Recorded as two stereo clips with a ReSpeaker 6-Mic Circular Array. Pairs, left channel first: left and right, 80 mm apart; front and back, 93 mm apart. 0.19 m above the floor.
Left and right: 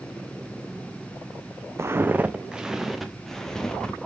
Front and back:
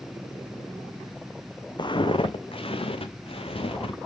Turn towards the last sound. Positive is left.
turn(degrees=10)